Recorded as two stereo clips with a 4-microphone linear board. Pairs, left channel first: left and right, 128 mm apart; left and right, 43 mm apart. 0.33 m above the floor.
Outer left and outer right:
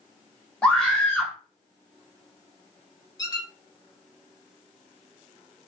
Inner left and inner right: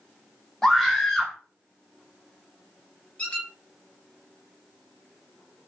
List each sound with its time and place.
0.6 s a scream: 5° left (ahead or behind), 0.9 m
3.2 s a squeak: 30° left (ahead or behind), 1.0 m